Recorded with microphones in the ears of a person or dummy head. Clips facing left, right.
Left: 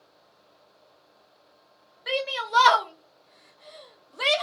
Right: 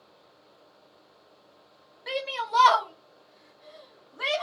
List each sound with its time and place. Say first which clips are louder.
2.1 s a shout: left 2 dB; 10° left (ahead or behind), 1.1 m; by 4.4 s 50° left (ahead or behind), 0.9 m